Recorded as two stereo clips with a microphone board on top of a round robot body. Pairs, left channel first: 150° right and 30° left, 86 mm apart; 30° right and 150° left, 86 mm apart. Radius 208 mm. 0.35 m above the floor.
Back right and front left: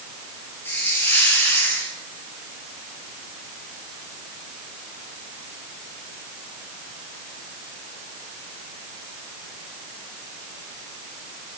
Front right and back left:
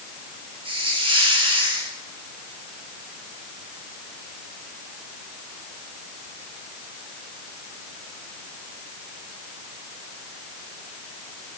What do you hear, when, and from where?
0.7 s a hiss: 140° left, 5 m